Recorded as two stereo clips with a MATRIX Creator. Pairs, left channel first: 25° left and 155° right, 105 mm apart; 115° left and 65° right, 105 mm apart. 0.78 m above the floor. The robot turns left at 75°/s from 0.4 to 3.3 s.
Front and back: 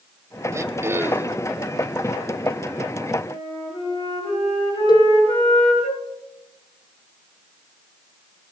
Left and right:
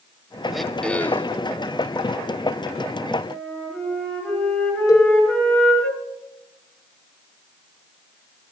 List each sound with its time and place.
0.5 s throat clearing: 150° right, 0.6 m; by 1.4 s 140° left, 0.6 m
3.3 s a flute: 40° left, 8 m; by 5.9 s 35° left, 8 m
4.9 s a cowbell: 60° left, 2.0 m